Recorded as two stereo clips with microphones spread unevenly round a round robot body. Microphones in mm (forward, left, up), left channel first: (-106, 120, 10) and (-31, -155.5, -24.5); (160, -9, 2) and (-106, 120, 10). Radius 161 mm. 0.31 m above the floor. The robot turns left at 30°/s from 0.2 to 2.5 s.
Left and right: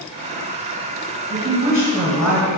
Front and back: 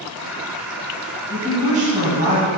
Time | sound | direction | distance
1.3 | a woman speaking | 130° right | 1.2 m